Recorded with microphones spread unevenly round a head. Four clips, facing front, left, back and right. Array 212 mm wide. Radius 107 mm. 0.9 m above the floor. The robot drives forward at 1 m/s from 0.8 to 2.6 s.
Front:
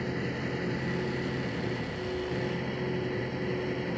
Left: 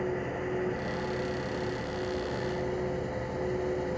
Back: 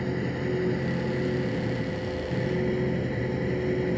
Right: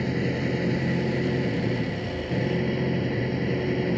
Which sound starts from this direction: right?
An engine running, at 0.0 s.